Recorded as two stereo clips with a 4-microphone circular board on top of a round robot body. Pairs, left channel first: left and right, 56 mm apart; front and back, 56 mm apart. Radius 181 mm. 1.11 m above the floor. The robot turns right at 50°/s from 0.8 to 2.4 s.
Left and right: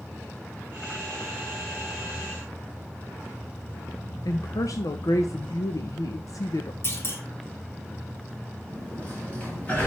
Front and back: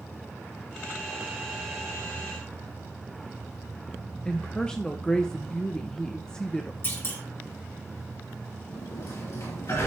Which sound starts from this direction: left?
A woman speaking, at 4.2 s.